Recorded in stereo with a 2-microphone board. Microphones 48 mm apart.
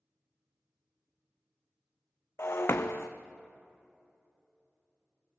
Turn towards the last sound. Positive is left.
turn(degrees=55)  # may be behind; listen again after turning